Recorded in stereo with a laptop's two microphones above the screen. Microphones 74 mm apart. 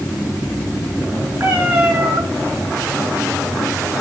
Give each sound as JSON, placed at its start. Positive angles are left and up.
{"t": 1.4, "sound": "a cat meowing", "side_deg": -35, "distance_m": 4.5}